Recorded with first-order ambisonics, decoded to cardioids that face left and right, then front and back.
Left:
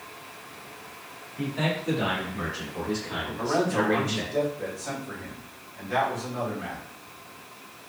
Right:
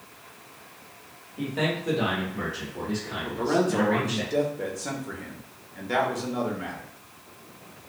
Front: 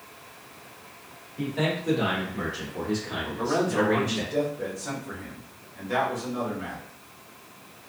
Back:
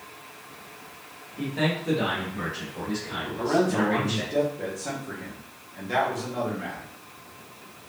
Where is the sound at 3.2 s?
105° right, 1.0 m.